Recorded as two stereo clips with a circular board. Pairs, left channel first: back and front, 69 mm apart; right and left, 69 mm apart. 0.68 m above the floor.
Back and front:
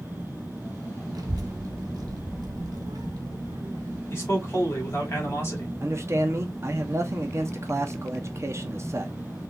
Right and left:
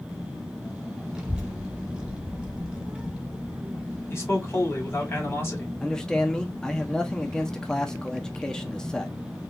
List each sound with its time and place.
1.1 s a child speaking: 15° left, 1.5 m
4.1 s a man speaking: 135° right, 2 m
5.8 s a man speaking: 15° right, 0.9 m